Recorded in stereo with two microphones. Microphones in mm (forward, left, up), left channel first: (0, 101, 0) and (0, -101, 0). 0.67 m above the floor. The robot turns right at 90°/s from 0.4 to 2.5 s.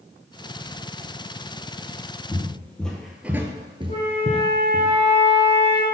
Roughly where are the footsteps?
Left.